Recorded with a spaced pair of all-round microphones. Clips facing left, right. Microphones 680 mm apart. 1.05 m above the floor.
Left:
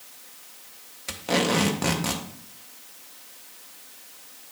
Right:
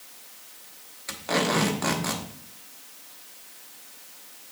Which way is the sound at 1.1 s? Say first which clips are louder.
Left 2 dB; 55° left (ahead or behind).